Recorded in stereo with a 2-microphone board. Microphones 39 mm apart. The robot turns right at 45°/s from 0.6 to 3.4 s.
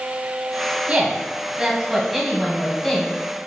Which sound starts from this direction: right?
A woman speaking, at 0.9 s.